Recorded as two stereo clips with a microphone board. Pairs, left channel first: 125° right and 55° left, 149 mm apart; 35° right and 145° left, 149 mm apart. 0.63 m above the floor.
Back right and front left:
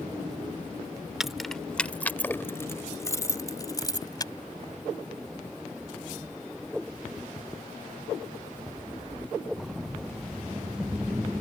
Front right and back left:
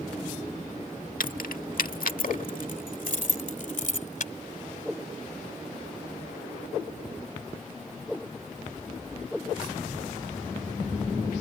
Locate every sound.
1.2 s keys jangling: 30° right; by 4.3 s 60° right